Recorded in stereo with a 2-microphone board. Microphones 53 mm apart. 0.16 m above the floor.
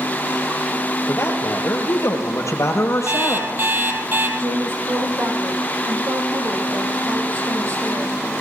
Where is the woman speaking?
60° right (ahead or behind), 5.5 m.